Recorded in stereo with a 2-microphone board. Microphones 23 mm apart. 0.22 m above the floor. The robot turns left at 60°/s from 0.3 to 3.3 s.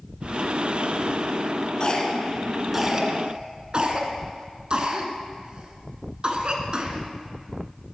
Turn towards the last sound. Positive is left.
turn(degrees=-45)  # may be behind; listen again after turning